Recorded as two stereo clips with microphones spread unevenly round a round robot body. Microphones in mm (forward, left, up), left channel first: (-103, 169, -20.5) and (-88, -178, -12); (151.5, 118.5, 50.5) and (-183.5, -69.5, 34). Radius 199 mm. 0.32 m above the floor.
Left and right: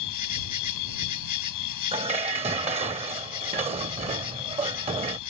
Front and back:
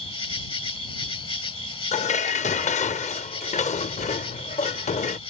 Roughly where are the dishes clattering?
Ahead right.